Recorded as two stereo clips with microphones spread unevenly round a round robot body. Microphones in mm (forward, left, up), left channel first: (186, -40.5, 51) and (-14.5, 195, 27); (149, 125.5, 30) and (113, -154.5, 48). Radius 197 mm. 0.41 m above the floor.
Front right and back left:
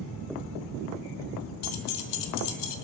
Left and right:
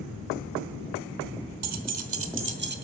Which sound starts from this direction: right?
Keys jangling, at 1.6 s.